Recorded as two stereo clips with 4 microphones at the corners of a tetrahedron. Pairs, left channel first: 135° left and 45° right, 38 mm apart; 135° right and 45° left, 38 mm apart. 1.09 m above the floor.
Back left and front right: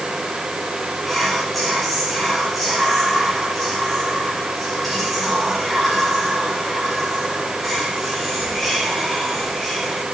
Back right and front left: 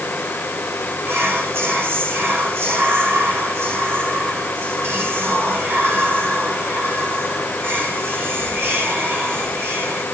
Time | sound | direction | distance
1.1 | whispering | 45° left | 3 m